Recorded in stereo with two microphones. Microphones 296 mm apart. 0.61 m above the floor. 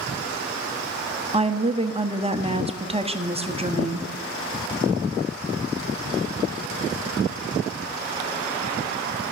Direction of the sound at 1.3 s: 20° right (ahead or behind).